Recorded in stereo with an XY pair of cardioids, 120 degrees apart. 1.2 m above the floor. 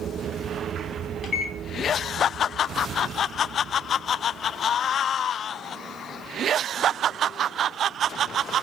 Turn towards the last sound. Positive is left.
turn(degrees=50)